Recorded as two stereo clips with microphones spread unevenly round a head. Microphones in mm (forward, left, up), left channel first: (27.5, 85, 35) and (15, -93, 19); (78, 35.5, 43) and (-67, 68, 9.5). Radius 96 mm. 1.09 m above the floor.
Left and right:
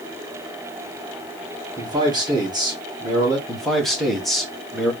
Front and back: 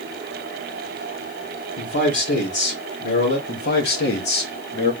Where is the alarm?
I don't hear an alarm.